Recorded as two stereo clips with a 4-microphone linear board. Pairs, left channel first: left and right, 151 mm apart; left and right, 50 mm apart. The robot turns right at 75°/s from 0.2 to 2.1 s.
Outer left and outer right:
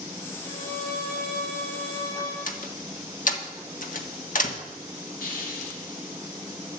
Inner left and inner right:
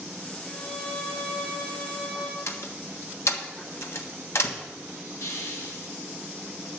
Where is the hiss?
75° left (ahead or behind), 3 m.